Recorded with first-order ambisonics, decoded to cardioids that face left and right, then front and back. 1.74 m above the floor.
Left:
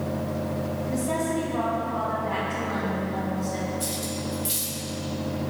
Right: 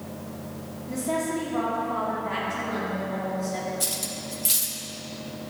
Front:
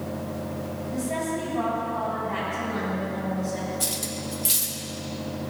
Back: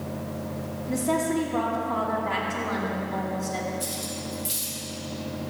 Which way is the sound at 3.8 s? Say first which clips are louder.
Even, front 2 dB; 40° right.